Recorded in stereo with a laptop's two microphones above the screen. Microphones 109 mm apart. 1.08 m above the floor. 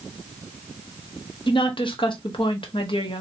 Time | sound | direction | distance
1.5 | a woman speaking | 50° left (ahead or behind) | 0.9 m